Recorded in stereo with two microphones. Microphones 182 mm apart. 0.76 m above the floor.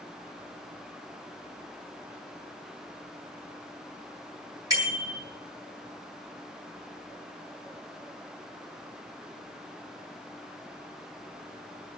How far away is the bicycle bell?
About 8.5 m.